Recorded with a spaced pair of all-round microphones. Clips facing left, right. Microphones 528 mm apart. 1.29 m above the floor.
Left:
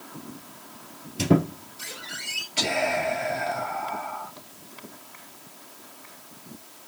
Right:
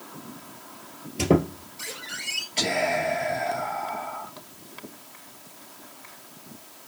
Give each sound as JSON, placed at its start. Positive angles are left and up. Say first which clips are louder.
{"t": 1.2, "sound": "a squeak", "louder": "even", "side_deg": 15, "distance_m": 1.7}
{"t": 2.6, "sound": "whispering", "louder": "right 1 dB", "side_deg": 30, "distance_m": 1.4}